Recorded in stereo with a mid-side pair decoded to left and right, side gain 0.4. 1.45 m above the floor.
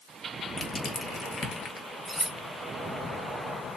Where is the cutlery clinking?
10° left, 1.9 m.